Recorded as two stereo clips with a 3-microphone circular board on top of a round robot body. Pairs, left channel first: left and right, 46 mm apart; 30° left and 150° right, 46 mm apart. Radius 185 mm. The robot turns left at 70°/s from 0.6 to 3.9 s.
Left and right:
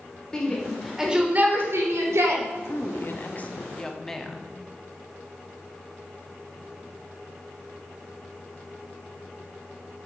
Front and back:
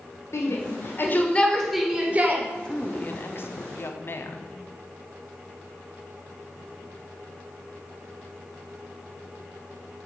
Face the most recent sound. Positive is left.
turn(degrees=10)